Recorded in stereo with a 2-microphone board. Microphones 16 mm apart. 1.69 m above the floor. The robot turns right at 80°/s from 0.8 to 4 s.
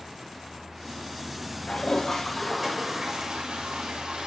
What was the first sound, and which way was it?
A toilet flushing, 105° left.